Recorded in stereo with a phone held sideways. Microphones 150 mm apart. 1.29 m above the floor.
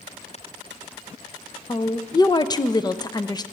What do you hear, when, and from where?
1.7 s a woman speaking: 25° left (ahead or behind), 0.5 m